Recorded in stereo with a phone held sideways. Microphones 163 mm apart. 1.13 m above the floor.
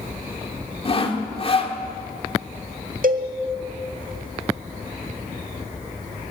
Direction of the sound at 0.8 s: 40° left (ahead or behind).